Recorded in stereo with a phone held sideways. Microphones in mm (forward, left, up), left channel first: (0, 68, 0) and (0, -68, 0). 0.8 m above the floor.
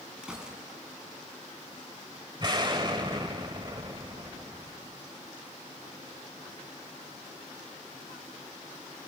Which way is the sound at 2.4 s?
35° right (ahead or behind).